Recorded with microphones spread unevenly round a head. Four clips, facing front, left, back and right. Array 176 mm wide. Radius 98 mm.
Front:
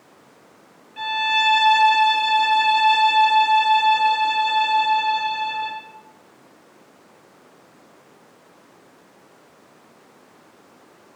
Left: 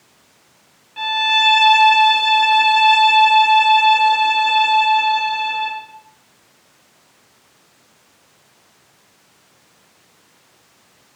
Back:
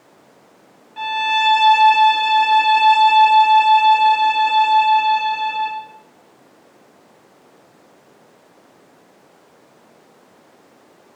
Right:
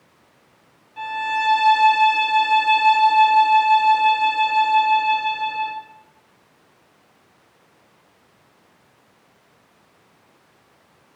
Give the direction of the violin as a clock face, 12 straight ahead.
6 o'clock.